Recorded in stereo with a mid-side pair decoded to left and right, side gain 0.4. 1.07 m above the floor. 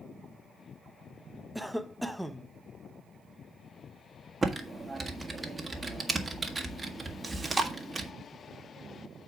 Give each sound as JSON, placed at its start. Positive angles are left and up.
{"t": 1.6, "sound": "a cough", "azimuth_deg": -5, "distance_m": 0.8}
{"t": 4.4, "sound": "typing on a keyboard", "azimuth_deg": -30, "distance_m": 1.5}
{"t": 7.2, "sound": "chewing", "azimuth_deg": -20, "distance_m": 1.8}